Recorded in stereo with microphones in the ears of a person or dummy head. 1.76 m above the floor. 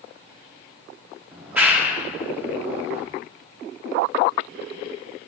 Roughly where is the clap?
Centre.